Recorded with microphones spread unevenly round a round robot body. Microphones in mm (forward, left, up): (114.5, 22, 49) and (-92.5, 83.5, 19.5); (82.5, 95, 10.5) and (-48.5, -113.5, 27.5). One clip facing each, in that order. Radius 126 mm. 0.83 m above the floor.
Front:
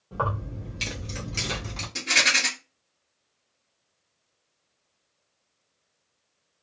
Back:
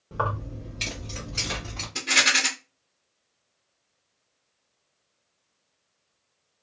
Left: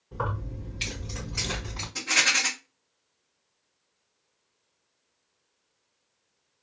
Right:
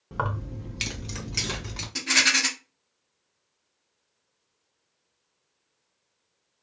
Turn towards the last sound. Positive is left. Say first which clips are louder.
# back 2 dB, right 5 dB
turn(degrees=-80)